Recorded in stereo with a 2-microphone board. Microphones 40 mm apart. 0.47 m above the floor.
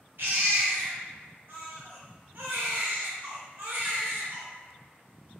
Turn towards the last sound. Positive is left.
turn(degrees=-60)  # may be behind; listen again after turning